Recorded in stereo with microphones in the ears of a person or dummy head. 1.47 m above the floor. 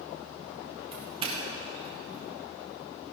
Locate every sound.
0.9 s a doorbell: 30° right (ahead or behind), 2.0 m